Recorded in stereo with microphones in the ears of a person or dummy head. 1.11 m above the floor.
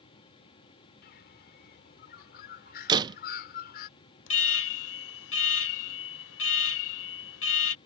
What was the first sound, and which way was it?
A bird, 60° left (ahead or behind).